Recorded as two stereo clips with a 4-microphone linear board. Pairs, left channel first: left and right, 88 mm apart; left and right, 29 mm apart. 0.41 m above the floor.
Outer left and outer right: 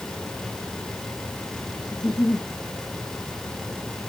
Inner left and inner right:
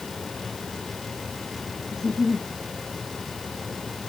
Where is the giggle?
50° left (ahead or behind), 5.5 m.